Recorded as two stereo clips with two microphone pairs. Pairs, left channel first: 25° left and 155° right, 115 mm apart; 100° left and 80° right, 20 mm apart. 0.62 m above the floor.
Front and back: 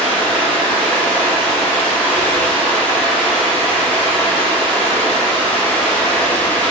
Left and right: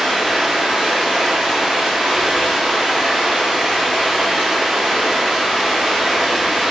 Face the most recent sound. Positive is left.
turn(degrees=-50)